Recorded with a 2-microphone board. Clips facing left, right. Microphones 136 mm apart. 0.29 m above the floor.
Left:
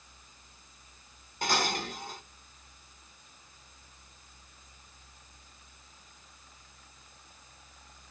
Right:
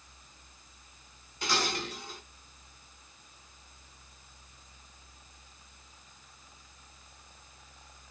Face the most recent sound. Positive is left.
turn(degrees=45)  # may be behind; listen again after turning